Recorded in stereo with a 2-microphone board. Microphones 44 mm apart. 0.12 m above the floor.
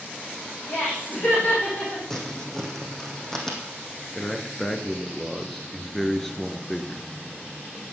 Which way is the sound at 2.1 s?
10° left (ahead or behind).